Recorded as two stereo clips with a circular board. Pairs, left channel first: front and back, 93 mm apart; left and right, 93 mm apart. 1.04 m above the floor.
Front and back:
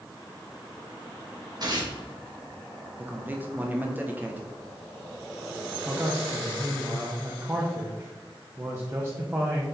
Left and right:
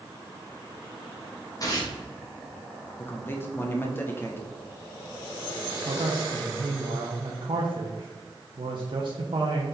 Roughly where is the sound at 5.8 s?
Right.